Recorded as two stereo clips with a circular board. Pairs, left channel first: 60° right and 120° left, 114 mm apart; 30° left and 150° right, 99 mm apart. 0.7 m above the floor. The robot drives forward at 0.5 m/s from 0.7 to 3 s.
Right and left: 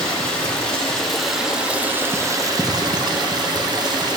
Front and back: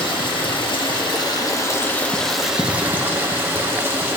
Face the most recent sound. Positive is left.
turn(degrees=150)